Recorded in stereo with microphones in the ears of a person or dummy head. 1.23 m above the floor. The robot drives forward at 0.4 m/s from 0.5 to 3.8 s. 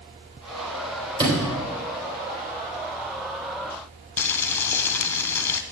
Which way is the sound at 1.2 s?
25° right (ahead or behind).